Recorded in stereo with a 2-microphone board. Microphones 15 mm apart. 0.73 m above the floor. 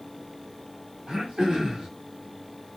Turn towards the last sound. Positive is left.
turn(degrees=-65)  # may be behind; listen again after turning